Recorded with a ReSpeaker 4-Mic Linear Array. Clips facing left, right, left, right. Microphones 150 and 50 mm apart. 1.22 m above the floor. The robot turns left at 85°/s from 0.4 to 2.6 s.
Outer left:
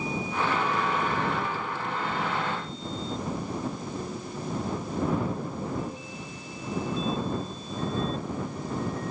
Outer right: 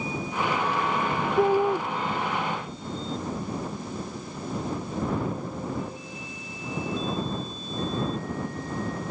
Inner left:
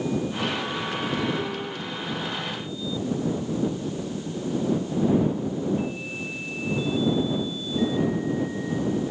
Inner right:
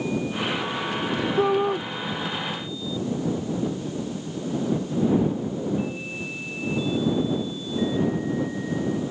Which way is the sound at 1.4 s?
70° right.